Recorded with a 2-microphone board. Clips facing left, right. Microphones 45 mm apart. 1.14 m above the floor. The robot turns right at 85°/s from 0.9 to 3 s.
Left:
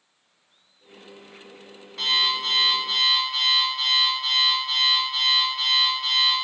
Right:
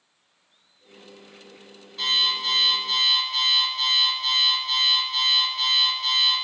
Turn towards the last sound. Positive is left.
turn(degrees=170)